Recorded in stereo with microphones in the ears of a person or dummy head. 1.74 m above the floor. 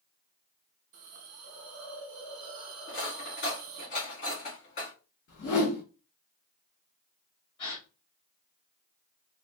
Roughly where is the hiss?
Right.